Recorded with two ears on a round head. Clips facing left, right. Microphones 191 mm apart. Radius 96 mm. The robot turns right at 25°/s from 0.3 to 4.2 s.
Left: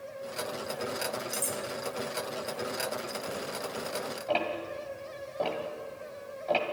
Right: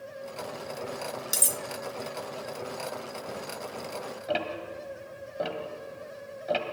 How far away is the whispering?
No whispering in this recording.